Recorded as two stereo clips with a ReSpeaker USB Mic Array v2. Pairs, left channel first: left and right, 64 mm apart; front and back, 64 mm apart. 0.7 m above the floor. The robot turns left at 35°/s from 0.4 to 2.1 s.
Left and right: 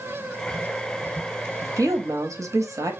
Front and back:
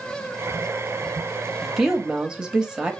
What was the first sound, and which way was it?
A woman speaking, 90° right.